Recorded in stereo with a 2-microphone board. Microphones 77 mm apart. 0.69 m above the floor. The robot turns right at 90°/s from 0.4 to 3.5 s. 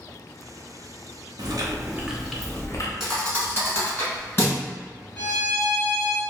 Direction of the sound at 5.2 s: 15° left (ahead or behind).